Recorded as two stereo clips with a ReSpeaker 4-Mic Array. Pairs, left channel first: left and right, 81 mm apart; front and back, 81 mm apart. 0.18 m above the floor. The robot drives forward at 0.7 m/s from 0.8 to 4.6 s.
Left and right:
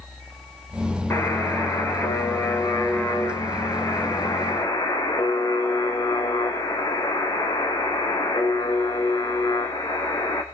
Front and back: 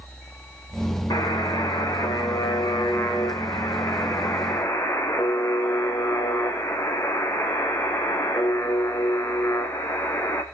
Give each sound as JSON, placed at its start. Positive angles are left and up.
{"t": 1.1, "sound": "a buzzer", "azimuth_deg": 30, "distance_m": 5.0}